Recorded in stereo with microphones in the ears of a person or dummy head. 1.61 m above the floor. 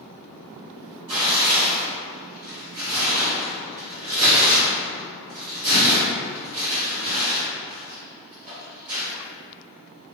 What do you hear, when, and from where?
1.1 s tearing paper: 35° right (ahead or behind), 1.8 m